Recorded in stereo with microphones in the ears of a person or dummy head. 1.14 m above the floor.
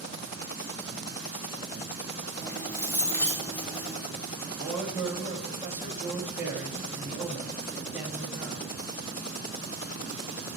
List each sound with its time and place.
2.4 s keys jangling: 10° left (ahead or behind), 2.5 m
4.5 s a man speaking: 10° right (ahead or behind), 2.0 m